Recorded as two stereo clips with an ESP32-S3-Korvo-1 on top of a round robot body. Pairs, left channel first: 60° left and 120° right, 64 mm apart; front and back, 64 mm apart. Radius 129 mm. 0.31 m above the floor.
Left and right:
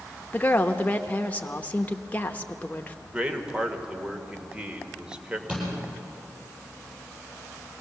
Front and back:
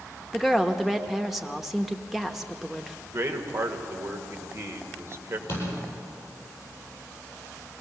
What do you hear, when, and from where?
0.3 s a woman speaking: 95° left, 0.9 m
3.0 s a man speaking: 175° left, 1.9 m
5.5 s a door slam: 45° right, 9 m